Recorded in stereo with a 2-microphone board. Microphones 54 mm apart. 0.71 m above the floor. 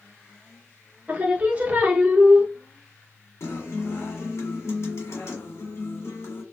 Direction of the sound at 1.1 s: 30° right (ahead or behind).